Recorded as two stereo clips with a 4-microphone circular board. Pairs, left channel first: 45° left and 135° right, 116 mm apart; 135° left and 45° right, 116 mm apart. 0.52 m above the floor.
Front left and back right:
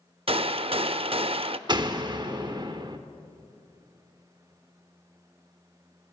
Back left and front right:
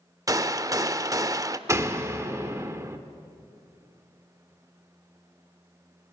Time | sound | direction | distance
0.3 | a gunshot | 105° right | 0.5 m
1.7 | a door slam | 100° right | 1.2 m